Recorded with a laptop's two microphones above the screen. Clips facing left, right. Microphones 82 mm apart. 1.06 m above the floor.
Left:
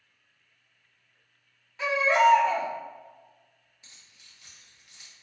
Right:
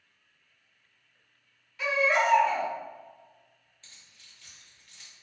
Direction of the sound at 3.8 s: 15° left (ahead or behind).